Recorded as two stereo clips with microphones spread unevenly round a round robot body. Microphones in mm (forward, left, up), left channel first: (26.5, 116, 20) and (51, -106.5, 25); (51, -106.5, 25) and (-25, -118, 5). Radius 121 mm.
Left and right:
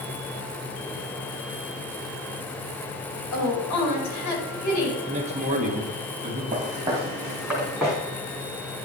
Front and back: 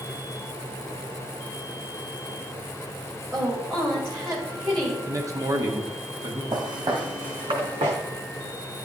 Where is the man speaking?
145° right, 1.5 m.